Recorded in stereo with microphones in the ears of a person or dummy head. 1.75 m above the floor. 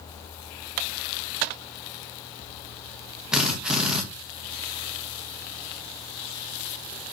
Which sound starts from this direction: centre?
A drill, at 3.3 s.